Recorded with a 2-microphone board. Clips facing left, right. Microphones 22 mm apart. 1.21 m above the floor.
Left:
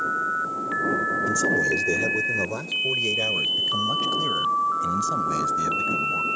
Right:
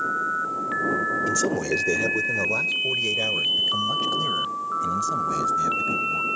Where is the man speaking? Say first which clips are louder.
Left 2 dB; 20° right (ahead or behind); by 6.3 s 15° left (ahead or behind).